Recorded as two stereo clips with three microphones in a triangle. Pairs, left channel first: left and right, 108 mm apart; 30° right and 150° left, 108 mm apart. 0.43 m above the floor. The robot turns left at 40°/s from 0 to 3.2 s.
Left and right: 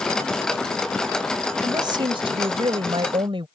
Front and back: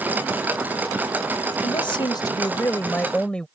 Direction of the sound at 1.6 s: 45° right.